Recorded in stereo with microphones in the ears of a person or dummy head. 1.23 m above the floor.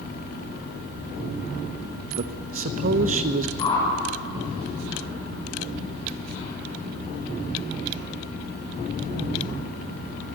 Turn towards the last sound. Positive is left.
turn(degrees=15)  # may be behind; listen again after turning